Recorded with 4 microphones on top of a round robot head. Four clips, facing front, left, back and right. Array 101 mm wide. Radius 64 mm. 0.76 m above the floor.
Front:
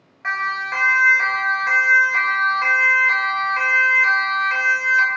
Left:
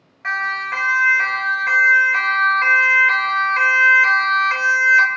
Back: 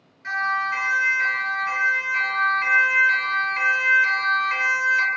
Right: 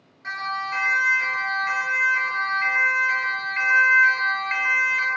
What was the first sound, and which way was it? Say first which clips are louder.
A siren: left 5 dB, even; 40° left.